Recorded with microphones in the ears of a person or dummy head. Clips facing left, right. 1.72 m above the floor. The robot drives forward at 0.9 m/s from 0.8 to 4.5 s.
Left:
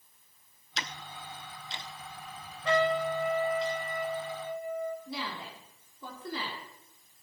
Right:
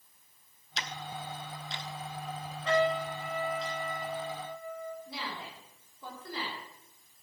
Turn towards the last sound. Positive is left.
turn(degrees=80)